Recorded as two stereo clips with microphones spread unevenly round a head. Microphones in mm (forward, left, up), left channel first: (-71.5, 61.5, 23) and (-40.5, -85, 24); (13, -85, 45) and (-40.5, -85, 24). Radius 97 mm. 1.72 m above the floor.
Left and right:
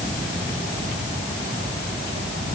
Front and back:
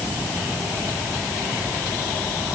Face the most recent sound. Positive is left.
No sound to turn to.